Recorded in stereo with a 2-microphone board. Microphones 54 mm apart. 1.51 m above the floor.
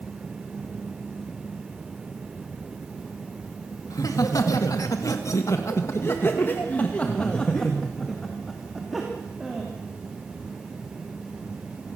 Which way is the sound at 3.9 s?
85° left.